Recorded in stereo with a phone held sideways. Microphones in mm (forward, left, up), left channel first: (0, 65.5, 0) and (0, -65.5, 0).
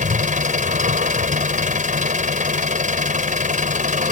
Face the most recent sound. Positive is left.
turn(degrees=-80)